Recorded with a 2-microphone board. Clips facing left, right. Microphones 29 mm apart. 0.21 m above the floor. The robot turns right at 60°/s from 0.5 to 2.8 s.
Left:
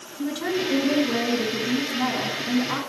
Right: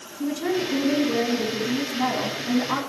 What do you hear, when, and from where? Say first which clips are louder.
0.2 s a woman speaking: right 1 dB; 75° left, 3 m; by 2.8 s 145° right, 3 m